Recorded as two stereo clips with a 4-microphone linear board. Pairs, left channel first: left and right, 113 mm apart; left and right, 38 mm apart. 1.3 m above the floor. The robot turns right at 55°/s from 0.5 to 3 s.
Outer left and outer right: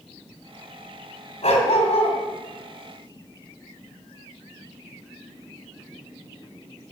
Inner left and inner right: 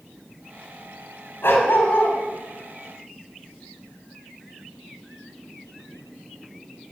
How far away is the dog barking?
About 3.5 m.